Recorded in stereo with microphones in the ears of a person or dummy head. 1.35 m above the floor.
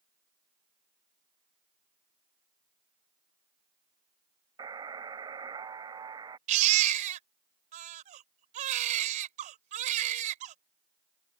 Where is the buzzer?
25° right (ahead or behind).